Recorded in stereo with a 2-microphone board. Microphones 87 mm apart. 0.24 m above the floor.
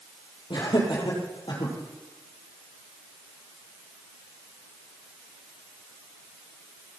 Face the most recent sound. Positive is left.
turn(degrees=65)  # may be behind; listen again after turning